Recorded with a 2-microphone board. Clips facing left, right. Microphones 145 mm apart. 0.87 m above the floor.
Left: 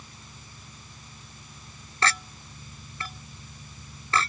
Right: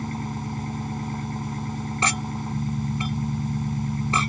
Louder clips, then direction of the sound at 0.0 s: Right 21 dB; 85° right.